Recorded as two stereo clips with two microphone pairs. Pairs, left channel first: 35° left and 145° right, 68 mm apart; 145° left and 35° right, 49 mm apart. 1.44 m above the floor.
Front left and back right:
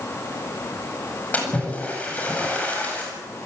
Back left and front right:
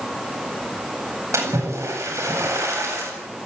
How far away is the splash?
About 8.5 m.